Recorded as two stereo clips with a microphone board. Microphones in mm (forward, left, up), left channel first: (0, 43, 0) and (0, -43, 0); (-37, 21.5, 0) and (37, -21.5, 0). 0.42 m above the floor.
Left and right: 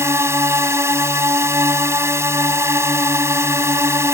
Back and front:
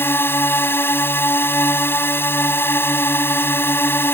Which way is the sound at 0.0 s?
145° right.